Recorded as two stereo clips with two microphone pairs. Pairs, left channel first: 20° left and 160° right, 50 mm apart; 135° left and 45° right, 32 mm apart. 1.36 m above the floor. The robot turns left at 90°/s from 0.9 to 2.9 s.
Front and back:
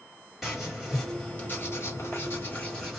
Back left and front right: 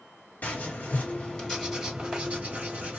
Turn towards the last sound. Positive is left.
turn(degrees=-60)